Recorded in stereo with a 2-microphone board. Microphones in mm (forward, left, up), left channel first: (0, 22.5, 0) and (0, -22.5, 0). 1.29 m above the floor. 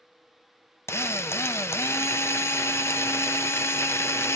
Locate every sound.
0.9 s a drill: 75° left (ahead or behind), 0.6 m